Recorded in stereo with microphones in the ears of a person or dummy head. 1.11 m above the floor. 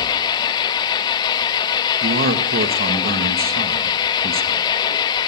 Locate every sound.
0.0 s an engine running: 20° left (ahead or behind), 0.7 m
2.0 s a man speaking: 50° right (ahead or behind), 1.1 m